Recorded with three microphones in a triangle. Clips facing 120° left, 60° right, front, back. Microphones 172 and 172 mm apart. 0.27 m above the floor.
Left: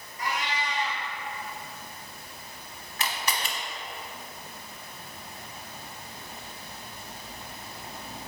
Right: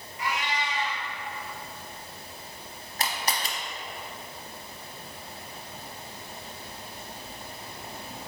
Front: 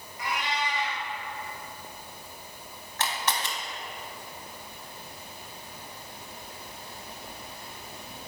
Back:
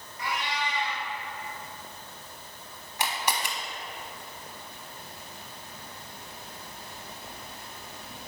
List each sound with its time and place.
0.2 s a cat meowing: 70° left, 2 m
3.0 s a camera shutter: 105° right, 0.8 m